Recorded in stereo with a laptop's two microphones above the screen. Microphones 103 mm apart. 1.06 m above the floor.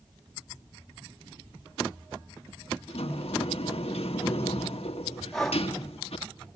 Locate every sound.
2.9 s a sliding door: 75° left (ahead or behind), 1.4 m
5.3 s breathing: 5° left (ahead or behind), 2.5 m